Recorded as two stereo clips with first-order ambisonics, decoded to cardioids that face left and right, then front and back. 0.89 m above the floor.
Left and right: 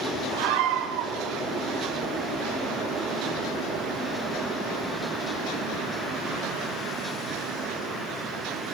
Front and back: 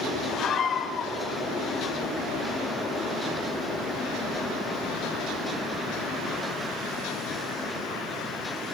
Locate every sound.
0.3 s a scream: 65° right, 3.5 m